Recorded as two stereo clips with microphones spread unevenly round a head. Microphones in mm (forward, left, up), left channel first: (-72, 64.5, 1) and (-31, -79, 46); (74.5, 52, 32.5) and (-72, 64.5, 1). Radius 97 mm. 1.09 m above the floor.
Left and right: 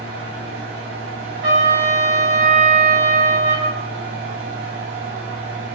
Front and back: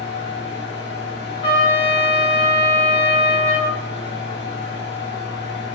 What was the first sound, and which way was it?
A fan, 35° right.